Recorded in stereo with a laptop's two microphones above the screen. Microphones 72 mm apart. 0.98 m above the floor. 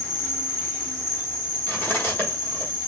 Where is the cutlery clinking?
30° left (ahead or behind), 1.2 m.